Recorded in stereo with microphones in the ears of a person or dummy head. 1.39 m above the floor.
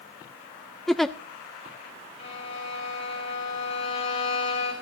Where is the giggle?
Centre (ahead or behind), 0.5 m.